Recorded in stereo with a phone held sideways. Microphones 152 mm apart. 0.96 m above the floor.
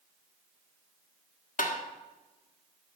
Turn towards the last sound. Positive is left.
turn(degrees=60)  # may be behind; listen again after turning